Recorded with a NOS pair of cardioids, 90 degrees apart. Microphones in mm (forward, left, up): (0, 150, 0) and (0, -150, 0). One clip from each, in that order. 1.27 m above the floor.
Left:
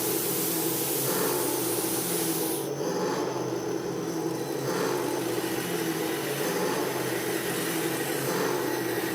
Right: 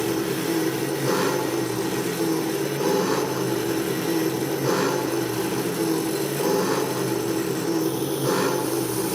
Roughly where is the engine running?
Ahead right.